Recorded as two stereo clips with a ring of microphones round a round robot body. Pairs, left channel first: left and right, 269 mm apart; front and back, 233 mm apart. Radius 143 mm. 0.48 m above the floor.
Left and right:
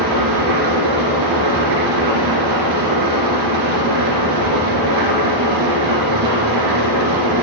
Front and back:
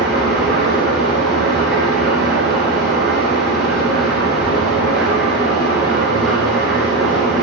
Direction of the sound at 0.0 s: 90° right.